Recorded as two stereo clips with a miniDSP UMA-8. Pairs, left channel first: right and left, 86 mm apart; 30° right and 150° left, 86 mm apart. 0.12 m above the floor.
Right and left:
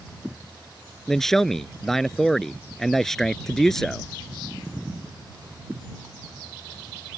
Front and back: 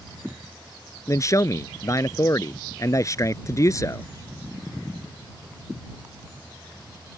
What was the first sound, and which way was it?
A man speaking, 5° right.